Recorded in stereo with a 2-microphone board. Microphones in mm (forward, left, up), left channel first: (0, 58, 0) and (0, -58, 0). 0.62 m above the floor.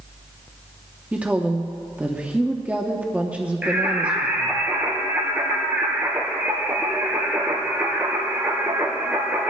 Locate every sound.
1.1 s a woman speaking: 10° right (ahead or behind), 0.9 m
3.6 s singing: 15° right (ahead or behind), 2.5 m